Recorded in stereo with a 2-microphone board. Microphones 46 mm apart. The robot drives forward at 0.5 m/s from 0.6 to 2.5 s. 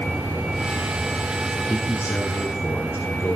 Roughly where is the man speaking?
Left.